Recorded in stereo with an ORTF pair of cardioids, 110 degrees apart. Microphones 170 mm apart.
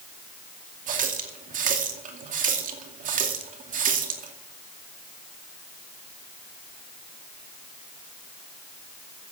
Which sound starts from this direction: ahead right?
A running tap, at 0.9 s.